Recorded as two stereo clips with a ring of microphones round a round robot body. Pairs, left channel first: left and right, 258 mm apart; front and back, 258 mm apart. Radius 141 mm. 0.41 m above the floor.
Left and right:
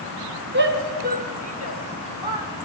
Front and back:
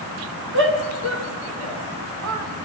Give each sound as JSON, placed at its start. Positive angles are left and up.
{"t": 0.5, "sound": "a shout", "azimuth_deg": -140, "distance_m": 5.0}